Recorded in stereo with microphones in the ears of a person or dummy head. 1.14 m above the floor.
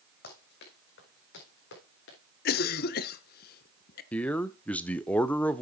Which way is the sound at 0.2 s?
65° left (ahead or behind).